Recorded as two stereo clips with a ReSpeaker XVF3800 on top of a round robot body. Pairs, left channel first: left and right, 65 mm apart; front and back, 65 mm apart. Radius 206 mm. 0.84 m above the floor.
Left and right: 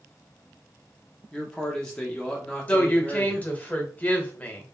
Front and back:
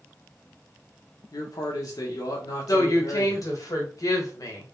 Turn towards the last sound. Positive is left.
turn(degrees=25)